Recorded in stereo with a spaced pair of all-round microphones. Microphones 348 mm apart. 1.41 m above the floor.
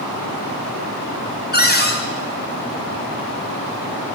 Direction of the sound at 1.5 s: 30° left (ahead or behind).